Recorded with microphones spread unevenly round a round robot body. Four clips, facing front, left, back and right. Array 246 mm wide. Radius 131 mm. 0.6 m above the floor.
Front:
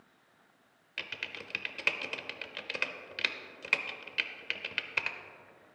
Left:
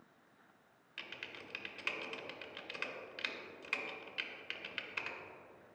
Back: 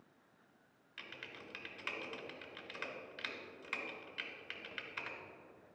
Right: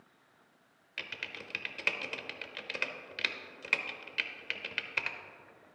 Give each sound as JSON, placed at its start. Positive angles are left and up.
{"t": 1.0, "sound": "typing on a keyboard", "azimuth_deg": -30, "distance_m": 0.8}